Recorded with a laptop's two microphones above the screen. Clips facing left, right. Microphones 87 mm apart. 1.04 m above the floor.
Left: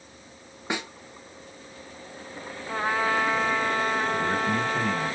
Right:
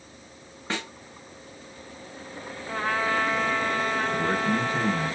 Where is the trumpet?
15° left (ahead or behind), 1.2 m.